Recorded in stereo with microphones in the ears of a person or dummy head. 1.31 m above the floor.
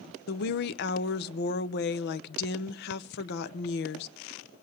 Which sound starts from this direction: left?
A woman speaking, at 0.3 s.